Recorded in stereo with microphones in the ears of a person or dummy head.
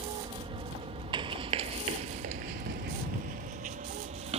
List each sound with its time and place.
0.0 s an aircraft: 25° right (ahead or behind); by 4.4 s 45° right (ahead or behind)
1.1 s running footsteps: 30° right (ahead or behind); by 4.4 s 35° right (ahead or behind)